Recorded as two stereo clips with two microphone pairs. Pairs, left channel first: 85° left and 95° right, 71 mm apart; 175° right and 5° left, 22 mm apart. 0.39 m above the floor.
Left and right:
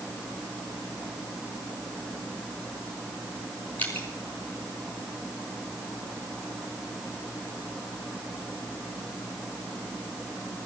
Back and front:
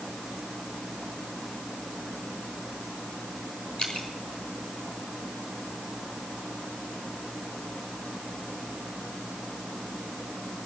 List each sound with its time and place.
3.8 s dripping: 150° left, 5 m